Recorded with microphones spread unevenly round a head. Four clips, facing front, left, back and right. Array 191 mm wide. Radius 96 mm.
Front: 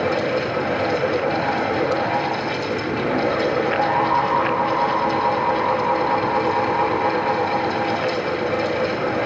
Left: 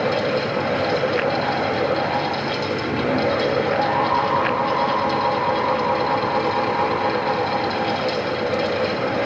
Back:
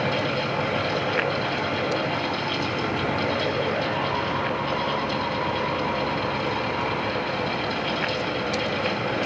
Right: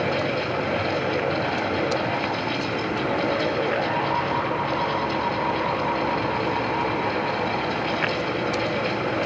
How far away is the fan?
About 2.5 m.